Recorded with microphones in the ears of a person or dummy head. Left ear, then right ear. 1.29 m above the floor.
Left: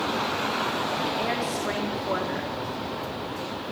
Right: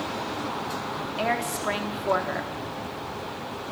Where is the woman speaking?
25° right (ahead or behind), 3 m.